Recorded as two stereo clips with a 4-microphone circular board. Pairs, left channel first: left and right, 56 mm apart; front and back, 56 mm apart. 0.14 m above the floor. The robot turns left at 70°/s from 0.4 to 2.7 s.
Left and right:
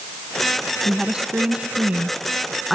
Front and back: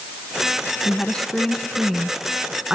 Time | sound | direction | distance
0.8 | a woman speaking | 35° right | 1.4 m